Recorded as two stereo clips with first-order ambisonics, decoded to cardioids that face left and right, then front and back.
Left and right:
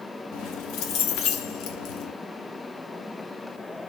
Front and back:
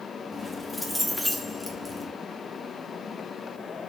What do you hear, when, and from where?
0.3 s keys jangling: 90° left, 0.5 m